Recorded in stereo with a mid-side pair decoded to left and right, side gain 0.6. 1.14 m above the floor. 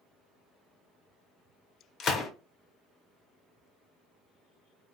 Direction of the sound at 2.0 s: 45° left.